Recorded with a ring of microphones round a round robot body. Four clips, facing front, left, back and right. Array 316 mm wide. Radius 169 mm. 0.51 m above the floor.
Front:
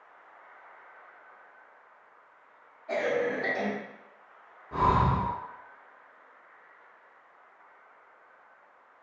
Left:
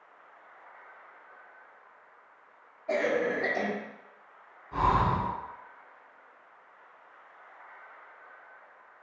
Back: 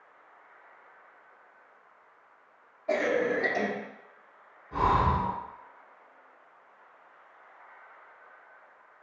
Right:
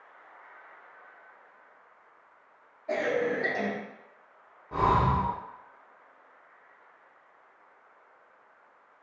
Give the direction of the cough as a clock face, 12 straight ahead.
6 o'clock.